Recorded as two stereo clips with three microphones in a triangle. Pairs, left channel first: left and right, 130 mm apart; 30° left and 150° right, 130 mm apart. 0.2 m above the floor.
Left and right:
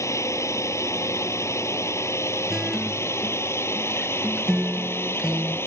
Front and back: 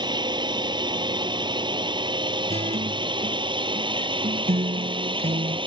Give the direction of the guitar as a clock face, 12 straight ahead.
6 o'clock.